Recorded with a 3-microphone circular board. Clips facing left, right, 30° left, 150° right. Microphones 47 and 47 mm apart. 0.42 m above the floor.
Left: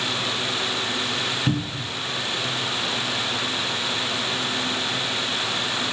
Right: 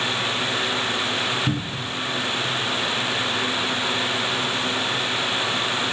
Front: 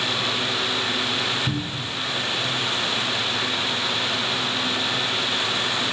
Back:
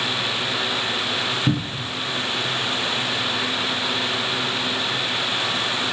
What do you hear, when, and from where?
1.5 s a cupboard door: 170° left, 0.8 m